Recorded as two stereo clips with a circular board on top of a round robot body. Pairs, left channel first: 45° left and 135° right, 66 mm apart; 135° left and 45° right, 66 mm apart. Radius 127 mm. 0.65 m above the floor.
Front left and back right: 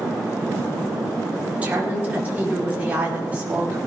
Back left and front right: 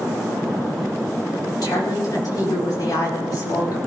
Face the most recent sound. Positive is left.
turn(degrees=160)